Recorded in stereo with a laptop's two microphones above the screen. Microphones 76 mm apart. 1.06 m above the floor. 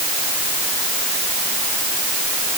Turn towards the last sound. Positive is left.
No sound to turn to.